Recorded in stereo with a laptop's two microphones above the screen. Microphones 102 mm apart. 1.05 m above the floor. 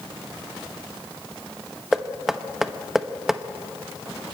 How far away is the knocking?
About 0.9 m.